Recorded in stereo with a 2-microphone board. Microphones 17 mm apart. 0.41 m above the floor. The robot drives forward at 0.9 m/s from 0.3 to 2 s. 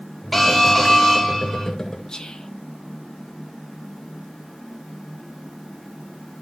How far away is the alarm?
About 1.2 m.